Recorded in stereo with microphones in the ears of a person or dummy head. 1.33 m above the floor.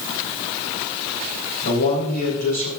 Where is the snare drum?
I don't hear a snare drum.